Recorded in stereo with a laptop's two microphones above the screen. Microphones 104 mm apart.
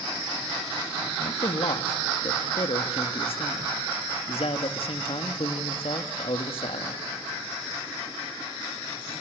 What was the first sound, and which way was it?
A man speaking, 65° left (ahead or behind).